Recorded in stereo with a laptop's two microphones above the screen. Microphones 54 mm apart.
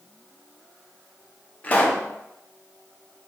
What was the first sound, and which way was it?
A pop, 25° left (ahead or behind).